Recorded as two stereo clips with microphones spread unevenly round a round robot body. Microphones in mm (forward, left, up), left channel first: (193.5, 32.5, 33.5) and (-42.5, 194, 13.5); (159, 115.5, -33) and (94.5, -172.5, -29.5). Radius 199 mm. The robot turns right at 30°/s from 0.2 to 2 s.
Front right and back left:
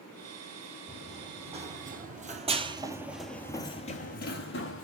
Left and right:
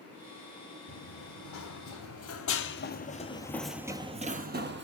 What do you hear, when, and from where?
0.9 s running footsteps: 60° left, 1.9 m; by 4.8 s 65° right, 1.2 m